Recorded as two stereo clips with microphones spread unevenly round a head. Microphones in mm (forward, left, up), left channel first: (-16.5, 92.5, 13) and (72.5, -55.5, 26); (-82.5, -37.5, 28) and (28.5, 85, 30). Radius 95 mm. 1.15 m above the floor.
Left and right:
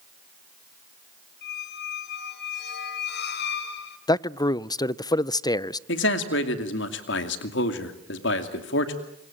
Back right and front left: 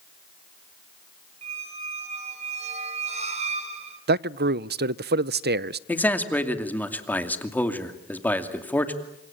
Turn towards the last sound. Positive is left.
turn(degrees=145)